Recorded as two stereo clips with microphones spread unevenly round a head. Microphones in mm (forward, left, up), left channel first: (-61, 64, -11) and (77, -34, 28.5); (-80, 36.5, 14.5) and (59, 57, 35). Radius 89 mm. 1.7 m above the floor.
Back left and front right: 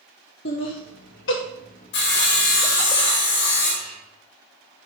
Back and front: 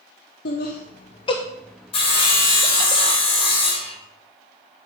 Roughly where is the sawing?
Behind left.